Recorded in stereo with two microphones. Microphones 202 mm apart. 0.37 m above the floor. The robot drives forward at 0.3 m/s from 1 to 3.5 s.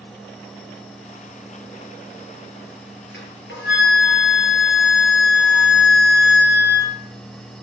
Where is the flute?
70° left (ahead or behind), 8.5 m.